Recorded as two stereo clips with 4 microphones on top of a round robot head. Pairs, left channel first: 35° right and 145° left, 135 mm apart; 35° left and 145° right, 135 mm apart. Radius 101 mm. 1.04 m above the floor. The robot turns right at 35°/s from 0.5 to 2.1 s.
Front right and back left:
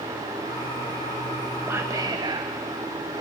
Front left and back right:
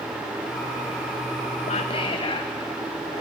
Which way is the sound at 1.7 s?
70° left.